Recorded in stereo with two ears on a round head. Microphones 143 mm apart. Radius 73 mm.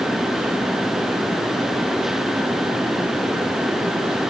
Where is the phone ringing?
I don't hear a phone ringing.